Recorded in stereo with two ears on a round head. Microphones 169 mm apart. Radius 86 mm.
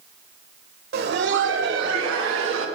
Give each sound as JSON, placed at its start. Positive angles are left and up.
{"t": 0.9, "sound": "laughter", "side_deg": -50, "distance_m": 1.3}